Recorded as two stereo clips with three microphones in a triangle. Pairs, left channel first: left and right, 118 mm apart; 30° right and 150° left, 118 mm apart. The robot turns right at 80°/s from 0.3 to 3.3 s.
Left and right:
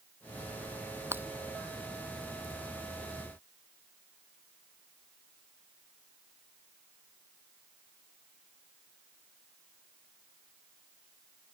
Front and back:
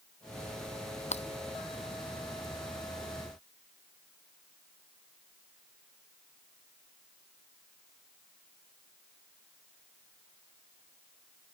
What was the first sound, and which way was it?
Breaking glass, 20° right.